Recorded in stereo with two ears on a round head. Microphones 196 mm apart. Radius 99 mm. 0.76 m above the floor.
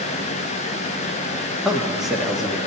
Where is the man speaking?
Centre (ahead or behind), 1.0 m.